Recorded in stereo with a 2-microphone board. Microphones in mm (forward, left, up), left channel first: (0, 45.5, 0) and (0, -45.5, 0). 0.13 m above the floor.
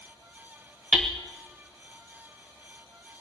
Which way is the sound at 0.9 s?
10° right (ahead or behind).